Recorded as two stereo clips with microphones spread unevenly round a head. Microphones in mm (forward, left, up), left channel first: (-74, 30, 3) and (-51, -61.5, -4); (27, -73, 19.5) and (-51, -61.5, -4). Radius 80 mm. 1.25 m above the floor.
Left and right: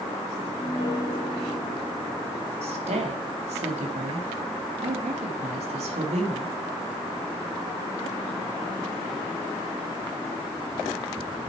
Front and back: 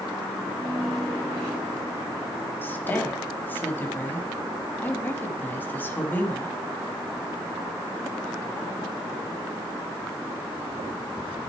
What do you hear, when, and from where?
0.4 s a piano: 100° left, 6 m
2.6 s a woman speaking: 70° right, 1.7 m